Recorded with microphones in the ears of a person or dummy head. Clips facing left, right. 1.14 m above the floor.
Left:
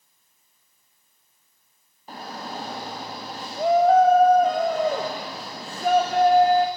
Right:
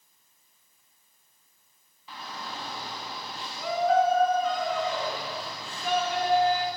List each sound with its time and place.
2.1 s a shout: 40° left (ahead or behind), 1.7 m